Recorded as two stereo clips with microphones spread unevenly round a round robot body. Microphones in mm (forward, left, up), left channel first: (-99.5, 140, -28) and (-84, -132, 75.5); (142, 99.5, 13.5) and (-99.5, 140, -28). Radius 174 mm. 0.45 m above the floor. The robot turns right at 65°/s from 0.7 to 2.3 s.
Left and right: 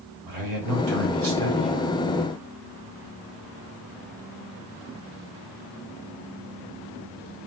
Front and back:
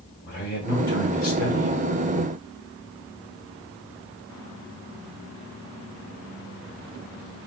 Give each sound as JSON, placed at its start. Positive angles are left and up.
{"t": 0.3, "sound": "a man speaking", "azimuth_deg": -70, "distance_m": 1.1}